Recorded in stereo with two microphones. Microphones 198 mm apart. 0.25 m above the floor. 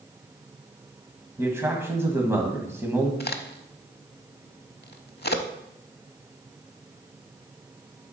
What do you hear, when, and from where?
1.4 s a man speaking: 15° right (ahead or behind), 1.6 m
3.2 s a crack: 55° left (ahead or behind), 0.6 m